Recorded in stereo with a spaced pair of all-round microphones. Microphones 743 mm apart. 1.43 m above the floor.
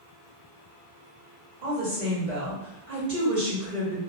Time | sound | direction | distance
1.6 | a woman speaking | 80° right | 1.8 m